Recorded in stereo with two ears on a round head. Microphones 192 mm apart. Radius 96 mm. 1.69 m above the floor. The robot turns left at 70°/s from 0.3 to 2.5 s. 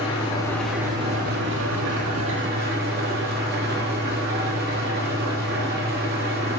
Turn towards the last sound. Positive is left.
turn(degrees=-130)